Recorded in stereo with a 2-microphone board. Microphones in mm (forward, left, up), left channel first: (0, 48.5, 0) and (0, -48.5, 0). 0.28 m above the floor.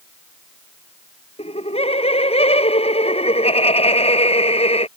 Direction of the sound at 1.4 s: 75° left (ahead or behind).